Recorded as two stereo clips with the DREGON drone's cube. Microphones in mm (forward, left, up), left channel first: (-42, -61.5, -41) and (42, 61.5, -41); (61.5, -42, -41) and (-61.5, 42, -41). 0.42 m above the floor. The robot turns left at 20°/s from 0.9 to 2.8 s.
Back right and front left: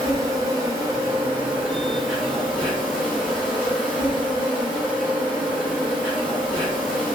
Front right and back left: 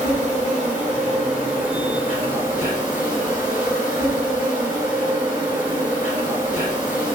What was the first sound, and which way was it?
An insect, 10° right.